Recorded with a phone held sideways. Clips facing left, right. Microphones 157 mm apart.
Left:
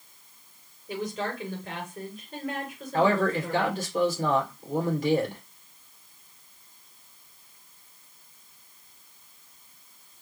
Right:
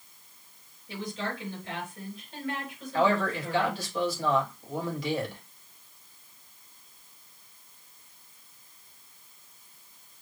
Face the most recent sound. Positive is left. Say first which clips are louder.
# left 3 dB
turn(degrees=45)  # may be behind; listen again after turning